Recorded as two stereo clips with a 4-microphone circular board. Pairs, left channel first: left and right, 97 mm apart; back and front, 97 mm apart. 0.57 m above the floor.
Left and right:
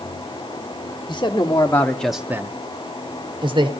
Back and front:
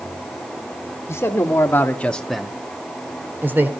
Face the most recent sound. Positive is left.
turn(degrees=-70)